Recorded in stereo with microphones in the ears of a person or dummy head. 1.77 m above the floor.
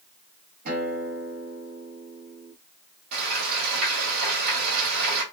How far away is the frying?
About 1.8 m.